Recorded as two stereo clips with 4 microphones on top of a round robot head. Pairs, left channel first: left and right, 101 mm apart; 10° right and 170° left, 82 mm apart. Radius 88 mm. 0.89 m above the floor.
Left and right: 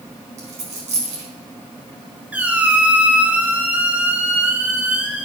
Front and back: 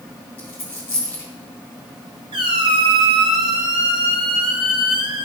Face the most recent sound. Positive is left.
turn(degrees=-165)